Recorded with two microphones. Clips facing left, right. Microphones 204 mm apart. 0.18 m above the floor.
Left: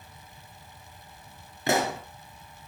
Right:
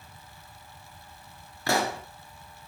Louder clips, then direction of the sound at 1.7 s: Left 2 dB; 20° left (ahead or behind).